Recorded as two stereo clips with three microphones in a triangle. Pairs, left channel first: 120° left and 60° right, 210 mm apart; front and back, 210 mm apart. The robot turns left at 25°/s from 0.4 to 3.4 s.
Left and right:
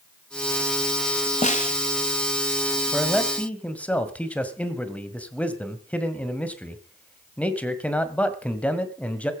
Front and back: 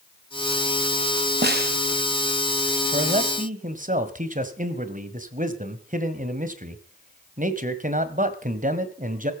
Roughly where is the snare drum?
Behind.